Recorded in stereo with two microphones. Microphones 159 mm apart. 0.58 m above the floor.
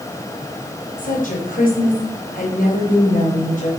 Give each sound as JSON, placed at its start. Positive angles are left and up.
{"t": 1.0, "sound": "a woman speaking", "side_deg": 65, "distance_m": 3.0}